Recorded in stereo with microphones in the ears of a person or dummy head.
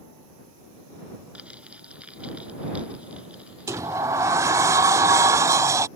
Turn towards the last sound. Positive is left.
turn(degrees=-20)  # may be behind; listen again after turning